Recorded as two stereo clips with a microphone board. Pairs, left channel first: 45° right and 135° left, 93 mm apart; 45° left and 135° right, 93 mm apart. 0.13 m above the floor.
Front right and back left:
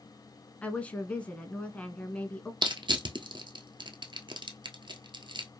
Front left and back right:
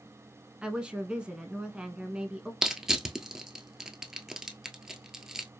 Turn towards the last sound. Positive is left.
turn(degrees=140)